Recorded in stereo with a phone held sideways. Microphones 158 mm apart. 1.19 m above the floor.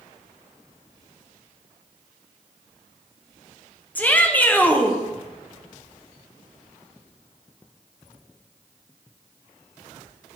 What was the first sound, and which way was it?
A shout, 10° left (ahead or behind).